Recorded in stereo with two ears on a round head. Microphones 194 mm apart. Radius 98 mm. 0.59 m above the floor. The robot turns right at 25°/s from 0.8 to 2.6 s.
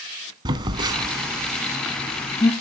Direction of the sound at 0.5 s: 20° right (ahead or behind).